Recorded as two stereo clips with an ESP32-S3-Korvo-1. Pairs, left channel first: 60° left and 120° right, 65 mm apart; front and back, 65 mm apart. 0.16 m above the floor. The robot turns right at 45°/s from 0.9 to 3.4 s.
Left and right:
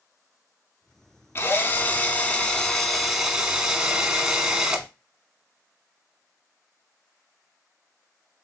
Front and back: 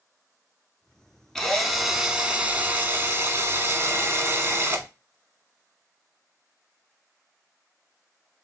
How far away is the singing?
I don't hear singing.